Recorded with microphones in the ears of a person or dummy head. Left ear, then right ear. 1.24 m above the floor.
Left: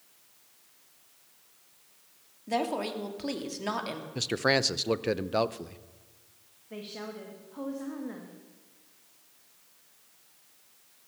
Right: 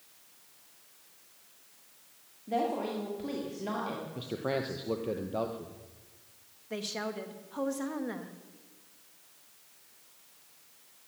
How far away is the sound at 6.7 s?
About 1.6 m.